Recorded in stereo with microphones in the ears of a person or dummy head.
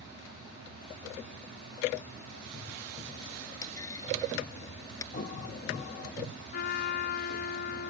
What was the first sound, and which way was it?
A clunk, 20° left (ahead or behind).